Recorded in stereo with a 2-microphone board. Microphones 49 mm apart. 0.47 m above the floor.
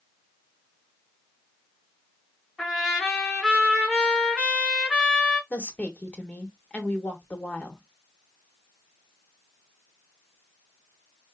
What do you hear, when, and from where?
2.6 s a trumpet: centre (ahead or behind), 3.5 m
5.5 s a woman speaking: 30° left (ahead or behind), 1.0 m